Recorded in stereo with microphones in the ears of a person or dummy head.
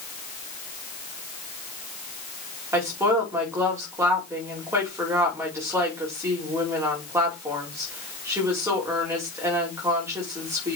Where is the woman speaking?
10° right (ahead or behind), 5.5 m.